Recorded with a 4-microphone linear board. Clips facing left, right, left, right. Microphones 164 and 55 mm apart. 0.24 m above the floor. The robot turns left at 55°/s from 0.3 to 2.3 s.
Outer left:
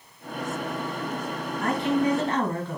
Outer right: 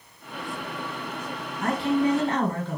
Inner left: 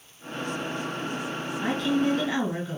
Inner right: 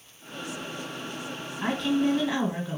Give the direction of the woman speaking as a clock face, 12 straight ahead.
4 o'clock.